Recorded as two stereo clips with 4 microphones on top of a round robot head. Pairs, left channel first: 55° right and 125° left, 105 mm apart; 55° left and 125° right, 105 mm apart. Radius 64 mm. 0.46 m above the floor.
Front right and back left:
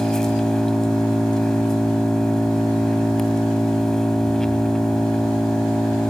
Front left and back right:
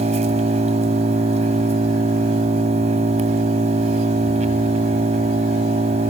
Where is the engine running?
140° right, 2.0 m.